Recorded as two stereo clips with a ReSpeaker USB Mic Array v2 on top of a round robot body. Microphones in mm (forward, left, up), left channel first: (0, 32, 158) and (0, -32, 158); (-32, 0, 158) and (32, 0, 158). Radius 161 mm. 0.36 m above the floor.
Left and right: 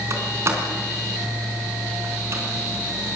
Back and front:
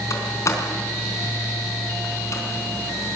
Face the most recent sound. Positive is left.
turn(degrees=-135)